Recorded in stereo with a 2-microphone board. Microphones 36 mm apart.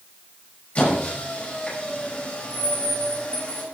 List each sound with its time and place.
0.8 s a squeak: 45° left (ahead or behind), 6 m